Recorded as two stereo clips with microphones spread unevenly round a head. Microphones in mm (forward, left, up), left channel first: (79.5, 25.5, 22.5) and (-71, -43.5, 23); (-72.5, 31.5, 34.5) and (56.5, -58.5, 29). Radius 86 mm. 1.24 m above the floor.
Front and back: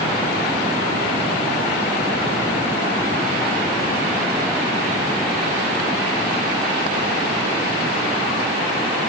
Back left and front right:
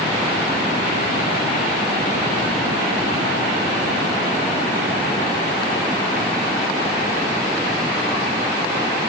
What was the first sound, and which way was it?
Only background noise.